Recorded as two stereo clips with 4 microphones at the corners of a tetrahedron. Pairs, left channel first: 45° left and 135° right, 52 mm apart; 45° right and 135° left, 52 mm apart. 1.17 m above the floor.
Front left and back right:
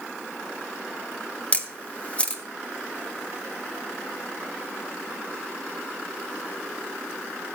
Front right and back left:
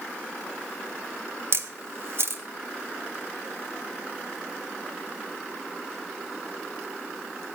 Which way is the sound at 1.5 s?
110° left.